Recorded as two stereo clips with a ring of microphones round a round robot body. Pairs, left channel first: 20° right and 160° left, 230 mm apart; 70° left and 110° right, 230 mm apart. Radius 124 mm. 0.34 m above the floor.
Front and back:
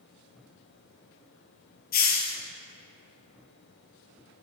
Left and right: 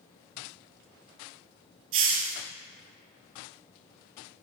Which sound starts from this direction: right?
A hiss, at 1.9 s.